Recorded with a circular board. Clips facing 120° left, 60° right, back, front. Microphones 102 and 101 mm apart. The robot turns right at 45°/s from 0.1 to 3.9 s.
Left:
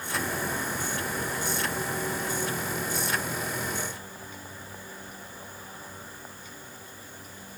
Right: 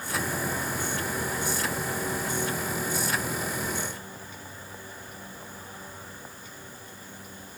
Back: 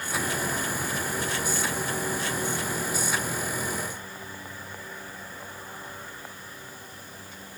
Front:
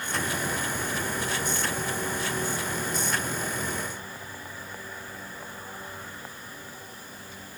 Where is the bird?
No bird in this recording.